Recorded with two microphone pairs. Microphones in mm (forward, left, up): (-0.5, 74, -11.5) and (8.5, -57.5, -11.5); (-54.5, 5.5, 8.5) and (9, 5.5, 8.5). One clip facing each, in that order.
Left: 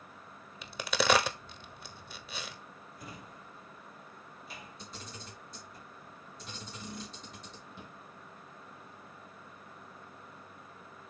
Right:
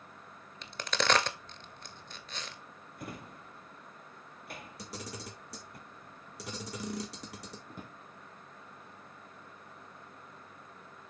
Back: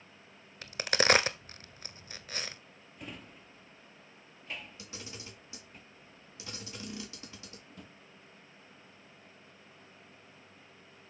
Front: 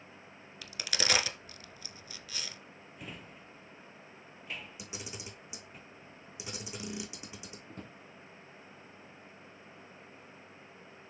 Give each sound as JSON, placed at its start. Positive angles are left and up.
{"t": 0.6, "sound": "a crack", "azimuth_deg": 170, "distance_m": 0.7}
{"t": 3.0, "sound": "a drawer", "azimuth_deg": -90, "distance_m": 1.1}
{"t": 4.8, "sound": "a camera shutter", "azimuth_deg": -75, "distance_m": 1.6}
{"t": 7.7, "sound": "a drawer", "azimuth_deg": -45, "distance_m": 1.3}